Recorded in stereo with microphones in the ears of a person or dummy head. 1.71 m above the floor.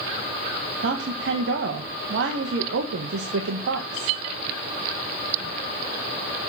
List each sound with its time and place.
0.8 s a woman speaking: 75° right (ahead or behind), 1.6 m